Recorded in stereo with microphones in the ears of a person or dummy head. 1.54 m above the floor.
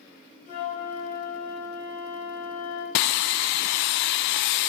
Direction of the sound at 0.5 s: 45° left (ahead or behind).